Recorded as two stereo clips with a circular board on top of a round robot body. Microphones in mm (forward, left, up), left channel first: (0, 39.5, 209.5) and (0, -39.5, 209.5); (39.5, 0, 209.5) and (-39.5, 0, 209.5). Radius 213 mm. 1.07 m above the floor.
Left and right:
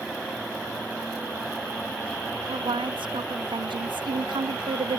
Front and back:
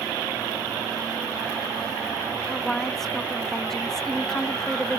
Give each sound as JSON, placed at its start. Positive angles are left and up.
{"t": 2.5, "sound": "a woman speaking", "azimuth_deg": -85}